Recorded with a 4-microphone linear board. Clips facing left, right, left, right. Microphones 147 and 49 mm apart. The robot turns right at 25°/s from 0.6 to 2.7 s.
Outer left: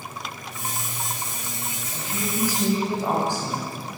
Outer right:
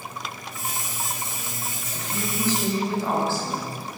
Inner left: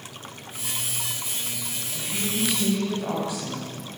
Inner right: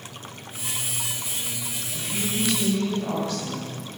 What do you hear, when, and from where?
1.9 s a woman speaking: centre (ahead or behind), 9 m; by 3.7 s 15° left (ahead or behind), 9 m